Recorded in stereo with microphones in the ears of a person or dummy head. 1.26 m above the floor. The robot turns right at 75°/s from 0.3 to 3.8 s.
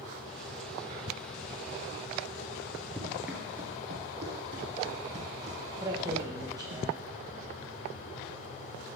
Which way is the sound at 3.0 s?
10° left (ahead or behind).